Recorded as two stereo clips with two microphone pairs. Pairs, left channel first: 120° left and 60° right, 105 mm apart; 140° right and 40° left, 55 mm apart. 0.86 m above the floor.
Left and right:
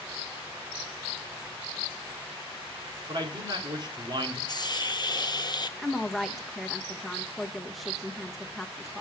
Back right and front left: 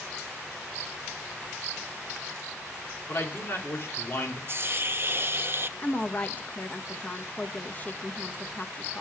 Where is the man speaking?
100° right, 3 m.